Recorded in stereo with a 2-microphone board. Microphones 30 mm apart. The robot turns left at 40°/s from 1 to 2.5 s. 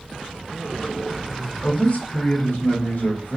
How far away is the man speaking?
About 3 m.